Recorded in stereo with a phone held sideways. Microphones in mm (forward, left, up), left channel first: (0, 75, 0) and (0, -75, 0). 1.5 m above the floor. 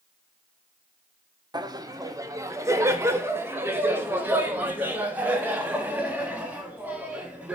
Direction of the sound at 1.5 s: 30° right (ahead or behind).